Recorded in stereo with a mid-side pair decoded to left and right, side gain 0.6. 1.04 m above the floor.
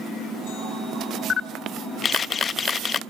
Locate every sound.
1.3 s a camera shutter: 35° left, 0.6 m